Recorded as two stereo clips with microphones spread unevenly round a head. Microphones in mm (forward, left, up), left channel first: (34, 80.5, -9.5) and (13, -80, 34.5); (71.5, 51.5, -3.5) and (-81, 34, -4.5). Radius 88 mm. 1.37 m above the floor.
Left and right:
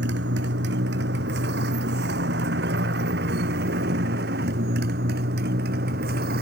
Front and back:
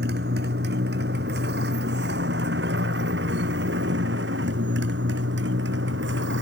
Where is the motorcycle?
130° right; by 6.4 s 140° right.